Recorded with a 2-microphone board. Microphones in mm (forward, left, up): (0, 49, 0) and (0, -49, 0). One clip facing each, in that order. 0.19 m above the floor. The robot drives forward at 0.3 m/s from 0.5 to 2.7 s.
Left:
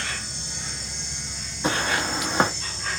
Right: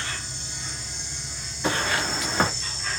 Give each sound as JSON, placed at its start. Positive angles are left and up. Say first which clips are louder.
{"t": 0.0, "sound": "an insect", "louder": "left 1 dB", "side_deg": 75, "distance_m": 1.1}
{"t": 1.6, "sound": "footsteps", "louder": "left 1 dB", "side_deg": 20, "distance_m": 1.1}